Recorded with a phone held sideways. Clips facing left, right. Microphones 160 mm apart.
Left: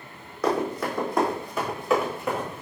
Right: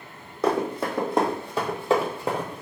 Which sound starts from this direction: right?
Running footsteps, at 0.4 s.